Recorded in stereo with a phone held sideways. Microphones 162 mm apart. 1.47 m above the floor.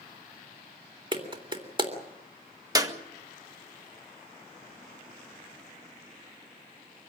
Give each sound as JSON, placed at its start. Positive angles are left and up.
{"t": 1.1, "sound": "a clap", "side_deg": -30, "distance_m": 3.0}
{"t": 2.8, "sound": "a clap", "side_deg": -20, "distance_m": 1.5}